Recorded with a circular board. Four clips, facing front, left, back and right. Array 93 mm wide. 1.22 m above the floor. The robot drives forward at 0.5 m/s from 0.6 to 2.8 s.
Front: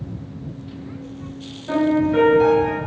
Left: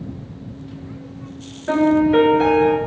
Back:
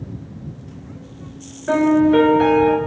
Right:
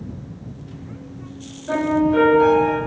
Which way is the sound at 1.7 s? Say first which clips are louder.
Left 3 dB, back 4 dB; 155° left.